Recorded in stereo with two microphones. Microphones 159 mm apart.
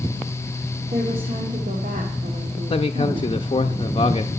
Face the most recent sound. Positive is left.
turn(degrees=35)  # may be behind; listen again after turning